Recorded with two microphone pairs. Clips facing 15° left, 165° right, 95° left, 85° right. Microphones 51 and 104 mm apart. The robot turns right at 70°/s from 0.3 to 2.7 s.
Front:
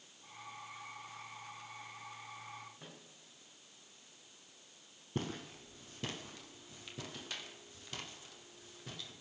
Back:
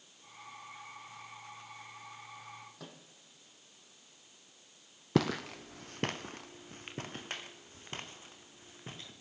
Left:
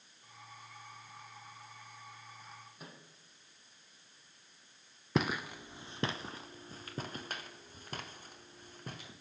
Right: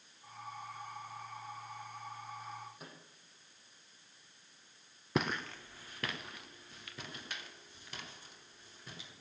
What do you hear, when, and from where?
2.8 s a microwave: 175° right, 3 m
5.2 s footsteps: 170° right, 0.8 m; by 9.1 s 135° left, 3.5 m